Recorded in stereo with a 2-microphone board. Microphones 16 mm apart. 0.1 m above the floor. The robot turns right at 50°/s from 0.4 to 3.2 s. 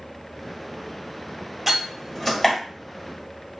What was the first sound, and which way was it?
A door slam, 10° right (ahead or behind).